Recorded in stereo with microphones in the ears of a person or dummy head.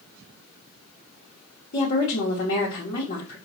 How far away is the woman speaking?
About 1.0 m.